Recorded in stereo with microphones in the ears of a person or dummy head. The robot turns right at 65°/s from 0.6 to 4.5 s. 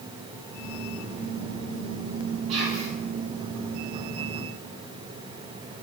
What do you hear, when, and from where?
2.5 s whispering: 45° right (ahead or behind), 1.1 m; by 2.9 s 15° right (ahead or behind), 1.1 m